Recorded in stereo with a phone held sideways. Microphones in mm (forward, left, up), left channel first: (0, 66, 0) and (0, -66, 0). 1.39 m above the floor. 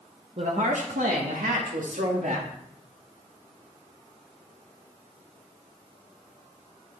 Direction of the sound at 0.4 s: 55° right (ahead or behind).